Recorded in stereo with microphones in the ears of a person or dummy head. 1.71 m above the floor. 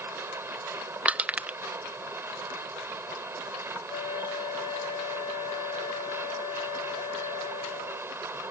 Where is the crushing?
15° right (ahead or behind).